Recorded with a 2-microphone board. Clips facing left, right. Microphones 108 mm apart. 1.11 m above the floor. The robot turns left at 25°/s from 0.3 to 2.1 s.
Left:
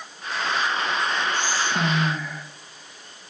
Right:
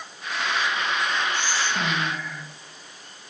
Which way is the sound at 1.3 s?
50° left (ahead or behind).